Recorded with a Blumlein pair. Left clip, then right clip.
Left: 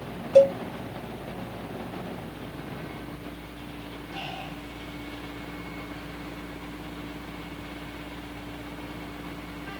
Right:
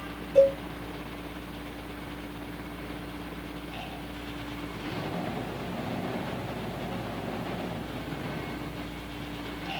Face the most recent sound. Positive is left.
turn(degrees=60)